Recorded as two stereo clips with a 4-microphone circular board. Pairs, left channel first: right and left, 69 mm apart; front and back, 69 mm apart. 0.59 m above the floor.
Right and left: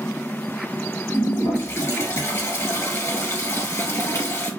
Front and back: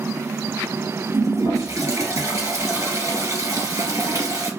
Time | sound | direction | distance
1.1 | a toilet flushing | 140° right | 1.6 m